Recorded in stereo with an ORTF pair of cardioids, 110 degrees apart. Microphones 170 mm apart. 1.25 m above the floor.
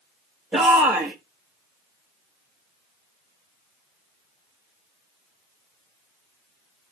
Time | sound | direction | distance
0.5 | a shout | 10° right | 1.4 m